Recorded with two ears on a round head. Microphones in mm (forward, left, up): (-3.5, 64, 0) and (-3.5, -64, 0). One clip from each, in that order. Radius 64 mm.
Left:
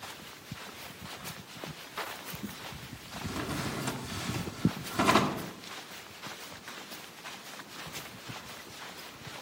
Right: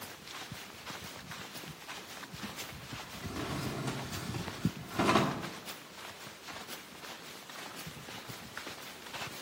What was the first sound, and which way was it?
A drawer, 25° left (ahead or behind).